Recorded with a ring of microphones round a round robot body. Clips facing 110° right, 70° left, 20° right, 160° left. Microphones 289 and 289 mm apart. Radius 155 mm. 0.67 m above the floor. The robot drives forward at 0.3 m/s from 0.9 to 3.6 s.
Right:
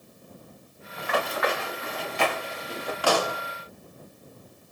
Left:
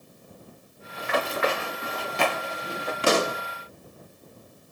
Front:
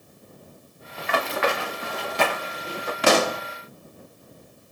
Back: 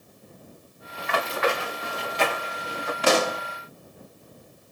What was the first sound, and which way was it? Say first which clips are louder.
Running footsteps: left 1 dB, front 1 dB; 5° right.